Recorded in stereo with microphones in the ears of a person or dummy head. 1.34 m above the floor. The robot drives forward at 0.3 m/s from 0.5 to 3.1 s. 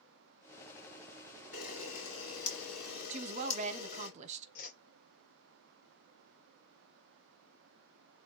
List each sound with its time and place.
1.5 s a camera shutter: 55° left (ahead or behind), 2.5 m; by 4.1 s 60° left (ahead or behind), 2.5 m
3.1 s a woman speaking: 30° right (ahead or behind), 0.6 m
4.5 s a whoosh: 50° left (ahead or behind), 1.5 m